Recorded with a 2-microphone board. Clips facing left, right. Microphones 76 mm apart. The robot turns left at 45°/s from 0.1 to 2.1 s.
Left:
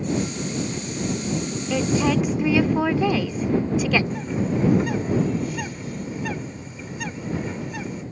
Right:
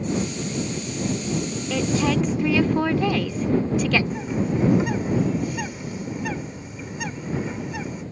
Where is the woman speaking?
10° left (ahead or behind); by 4.0 s 5° left (ahead or behind).